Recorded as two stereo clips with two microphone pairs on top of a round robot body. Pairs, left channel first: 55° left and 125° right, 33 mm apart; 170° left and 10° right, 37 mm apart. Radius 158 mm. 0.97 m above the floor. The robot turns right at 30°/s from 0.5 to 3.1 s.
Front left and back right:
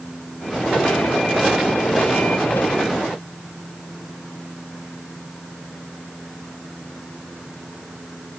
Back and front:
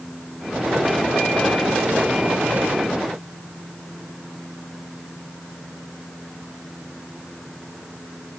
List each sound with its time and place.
Only background noise.